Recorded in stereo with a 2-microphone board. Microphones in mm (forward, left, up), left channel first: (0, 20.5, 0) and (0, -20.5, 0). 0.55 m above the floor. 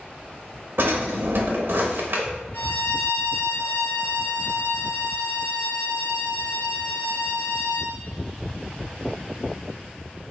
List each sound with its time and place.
0.8 s a drawer: 65° right (ahead or behind), 0.8 m
2.5 s a violin: 55° left (ahead or behind), 1.2 m